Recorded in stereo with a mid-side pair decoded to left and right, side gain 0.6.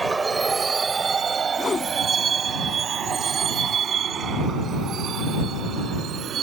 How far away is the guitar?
I don't hear a guitar.